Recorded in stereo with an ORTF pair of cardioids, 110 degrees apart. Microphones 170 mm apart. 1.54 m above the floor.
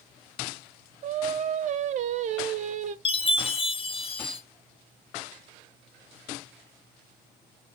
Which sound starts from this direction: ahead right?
Singing, at 1.0 s.